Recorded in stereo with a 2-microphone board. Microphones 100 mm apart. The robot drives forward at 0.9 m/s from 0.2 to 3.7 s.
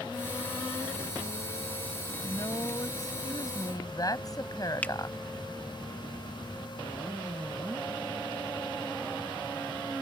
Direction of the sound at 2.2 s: 45° left (ahead or behind).